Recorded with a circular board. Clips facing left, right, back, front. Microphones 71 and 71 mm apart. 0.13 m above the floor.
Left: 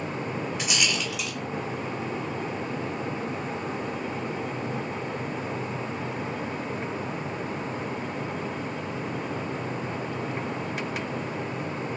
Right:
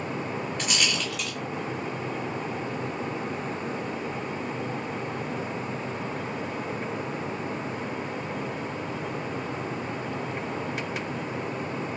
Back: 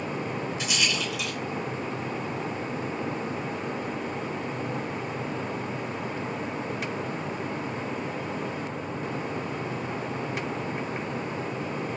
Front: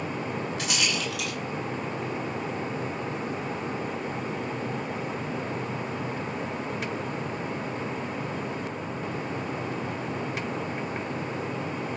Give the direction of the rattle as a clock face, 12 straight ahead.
12 o'clock.